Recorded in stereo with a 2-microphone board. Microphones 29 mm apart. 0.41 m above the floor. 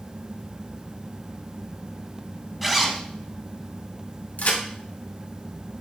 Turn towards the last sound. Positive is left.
turn(degrees=65)  # may be behind; listen again after turning